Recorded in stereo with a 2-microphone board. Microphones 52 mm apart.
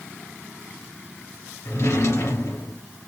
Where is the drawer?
70° left (ahead or behind), 2.5 m.